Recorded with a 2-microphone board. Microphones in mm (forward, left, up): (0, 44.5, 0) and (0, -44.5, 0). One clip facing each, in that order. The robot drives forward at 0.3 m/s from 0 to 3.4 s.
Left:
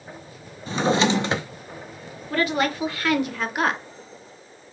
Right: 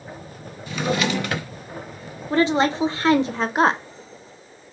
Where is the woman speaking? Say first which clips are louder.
Right 4 dB; 25° right (ahead or behind), 0.8 m; by 3.8 s 30° right (ahead or behind), 0.7 m.